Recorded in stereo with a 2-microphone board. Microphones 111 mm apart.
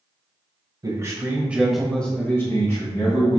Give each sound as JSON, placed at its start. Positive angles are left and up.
{"t": 0.8, "sound": "a man speaking", "side_deg": -35, "distance_m": 1.1}